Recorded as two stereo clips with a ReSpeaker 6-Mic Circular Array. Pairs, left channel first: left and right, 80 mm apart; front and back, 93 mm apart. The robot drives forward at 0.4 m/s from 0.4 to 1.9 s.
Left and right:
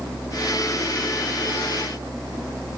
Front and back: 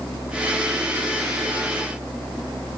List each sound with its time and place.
Only background noise.